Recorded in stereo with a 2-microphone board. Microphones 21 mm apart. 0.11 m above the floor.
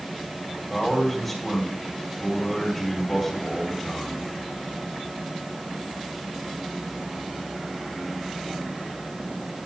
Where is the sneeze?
I don't hear a sneeze.